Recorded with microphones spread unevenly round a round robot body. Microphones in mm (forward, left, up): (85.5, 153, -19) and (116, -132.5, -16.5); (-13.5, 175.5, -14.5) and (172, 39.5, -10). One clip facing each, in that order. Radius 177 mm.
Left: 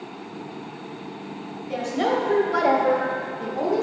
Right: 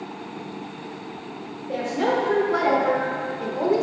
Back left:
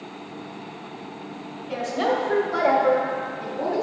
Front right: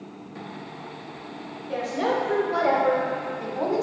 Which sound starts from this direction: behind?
A woman speaking, at 1.7 s.